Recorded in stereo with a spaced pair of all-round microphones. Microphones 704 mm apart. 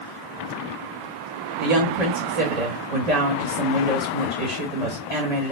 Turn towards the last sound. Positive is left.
turn(degrees=-65)  # may be behind; listen again after turning